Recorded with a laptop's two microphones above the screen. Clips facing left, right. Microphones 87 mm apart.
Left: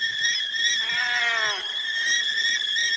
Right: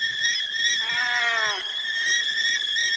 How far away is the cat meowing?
About 0.8 m.